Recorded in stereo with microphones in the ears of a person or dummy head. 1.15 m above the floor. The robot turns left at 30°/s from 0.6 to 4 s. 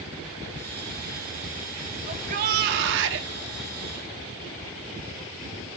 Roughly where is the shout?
Ahead right.